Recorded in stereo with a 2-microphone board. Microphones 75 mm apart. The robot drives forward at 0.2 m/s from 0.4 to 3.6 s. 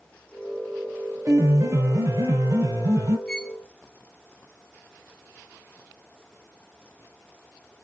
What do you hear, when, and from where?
1.2 s a piano: 45° right (ahead or behind), 2.0 m; by 3.2 s 35° right (ahead or behind), 2 m
3.3 s a violin: 10° left (ahead or behind), 0.7 m